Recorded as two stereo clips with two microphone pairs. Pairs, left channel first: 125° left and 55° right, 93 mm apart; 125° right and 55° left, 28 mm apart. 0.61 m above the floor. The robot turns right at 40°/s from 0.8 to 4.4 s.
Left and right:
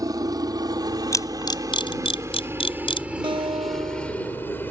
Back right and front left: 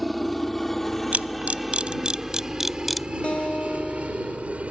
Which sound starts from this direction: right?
A guitar, at 3.2 s.